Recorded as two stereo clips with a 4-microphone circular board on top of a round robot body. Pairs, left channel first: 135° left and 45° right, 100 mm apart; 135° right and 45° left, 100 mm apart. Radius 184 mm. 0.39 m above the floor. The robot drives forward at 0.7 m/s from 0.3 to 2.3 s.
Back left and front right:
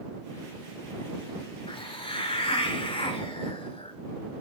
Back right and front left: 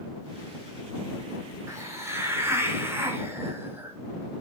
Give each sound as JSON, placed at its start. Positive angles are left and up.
{"t": 1.7, "sound": "a hiss", "azimuth_deg": 105, "distance_m": 3.5}